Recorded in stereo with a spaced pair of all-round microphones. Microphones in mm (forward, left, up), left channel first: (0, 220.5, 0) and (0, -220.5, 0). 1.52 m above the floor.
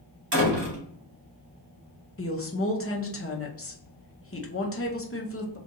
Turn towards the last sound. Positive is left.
turn(degrees=30)  # may be behind; listen again after turning